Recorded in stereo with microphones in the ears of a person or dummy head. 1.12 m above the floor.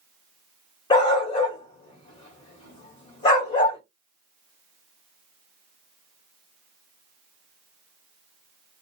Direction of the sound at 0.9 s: 35° left (ahead or behind).